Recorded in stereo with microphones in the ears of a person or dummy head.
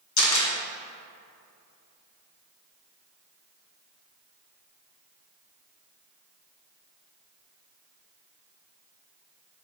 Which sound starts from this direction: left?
A camera shutter, at 0.2 s.